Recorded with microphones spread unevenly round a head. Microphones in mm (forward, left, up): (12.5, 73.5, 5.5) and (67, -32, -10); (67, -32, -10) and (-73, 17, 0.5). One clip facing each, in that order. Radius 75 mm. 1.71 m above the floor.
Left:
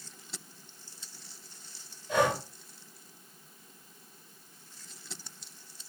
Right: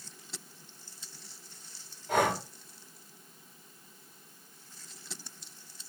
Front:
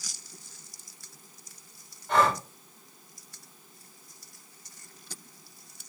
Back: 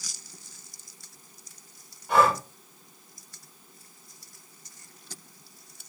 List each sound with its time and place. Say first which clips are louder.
2.1 s breathing: left 1 dB, back 2 dB; 115° right, 7.5 m